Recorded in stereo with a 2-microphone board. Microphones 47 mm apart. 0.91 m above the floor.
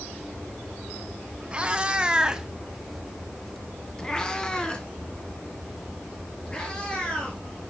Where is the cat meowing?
25° right (ahead or behind), 1.1 m; by 7.4 s 25° left (ahead or behind), 3.5 m.